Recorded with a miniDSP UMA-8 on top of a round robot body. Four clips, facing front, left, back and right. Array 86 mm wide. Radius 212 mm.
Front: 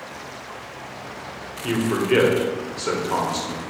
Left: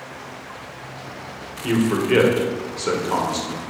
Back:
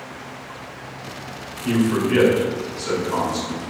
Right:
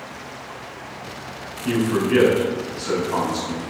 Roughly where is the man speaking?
Ahead left.